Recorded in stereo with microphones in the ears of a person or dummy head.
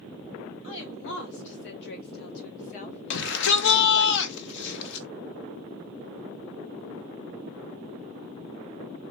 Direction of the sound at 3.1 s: 65° left (ahead or behind).